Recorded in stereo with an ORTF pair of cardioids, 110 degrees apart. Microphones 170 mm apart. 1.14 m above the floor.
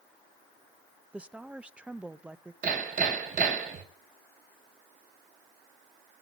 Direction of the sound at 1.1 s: 5° right.